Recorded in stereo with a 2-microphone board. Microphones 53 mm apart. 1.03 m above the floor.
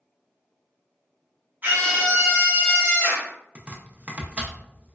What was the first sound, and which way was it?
A scream, 35° right (ahead or behind).